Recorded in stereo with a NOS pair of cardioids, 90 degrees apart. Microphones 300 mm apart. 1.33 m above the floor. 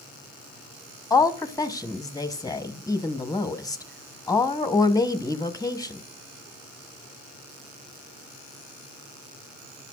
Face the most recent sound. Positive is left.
turn(degrees=10)